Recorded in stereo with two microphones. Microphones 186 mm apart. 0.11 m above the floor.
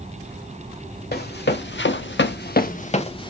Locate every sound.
1.1 s running footsteps: 60° left (ahead or behind), 0.8 m; by 3.3 s 25° left (ahead or behind), 0.7 m